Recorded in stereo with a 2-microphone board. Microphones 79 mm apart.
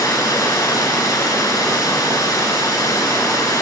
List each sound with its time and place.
0.0 s running water: 50° left (ahead or behind), 0.9 m